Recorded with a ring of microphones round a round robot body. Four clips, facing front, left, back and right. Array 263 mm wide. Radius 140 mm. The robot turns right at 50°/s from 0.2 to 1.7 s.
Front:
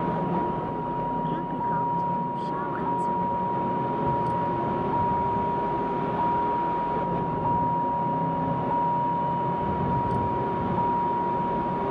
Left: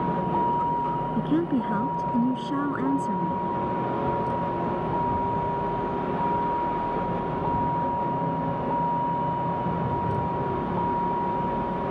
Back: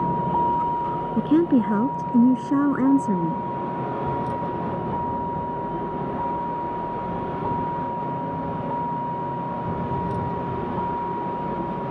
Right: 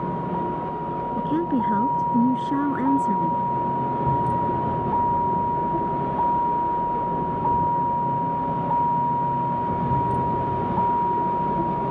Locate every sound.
0.0 s a vehicle: 175° right; by 11.9 s 100° right
1.2 s a woman speaking: 170° left; by 3.5 s 165° right